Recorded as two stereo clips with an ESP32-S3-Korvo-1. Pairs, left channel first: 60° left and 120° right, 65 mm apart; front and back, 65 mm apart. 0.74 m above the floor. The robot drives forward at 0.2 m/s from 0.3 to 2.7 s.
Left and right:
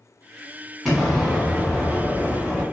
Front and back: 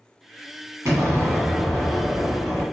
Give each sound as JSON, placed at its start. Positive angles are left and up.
{"t": 0.8, "sound": "an explosion", "azimuth_deg": 150, "distance_m": 1.3}